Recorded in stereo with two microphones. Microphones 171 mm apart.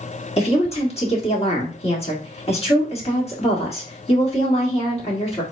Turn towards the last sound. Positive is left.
turn(degrees=40)  # may be behind; listen again after turning